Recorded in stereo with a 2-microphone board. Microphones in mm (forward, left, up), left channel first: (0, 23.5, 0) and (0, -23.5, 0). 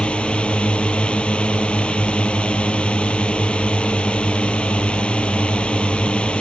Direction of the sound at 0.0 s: 25° left (ahead or behind).